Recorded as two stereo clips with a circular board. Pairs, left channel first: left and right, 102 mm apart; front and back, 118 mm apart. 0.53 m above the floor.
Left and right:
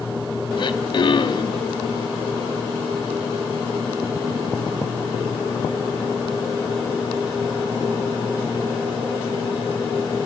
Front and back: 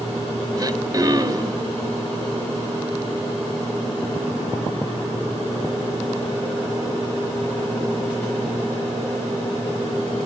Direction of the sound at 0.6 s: 125° left.